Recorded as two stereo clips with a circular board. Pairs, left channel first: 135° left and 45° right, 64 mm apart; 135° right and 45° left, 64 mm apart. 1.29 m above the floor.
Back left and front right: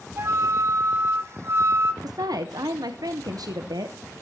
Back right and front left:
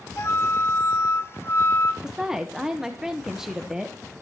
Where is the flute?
85° right, 1.1 m.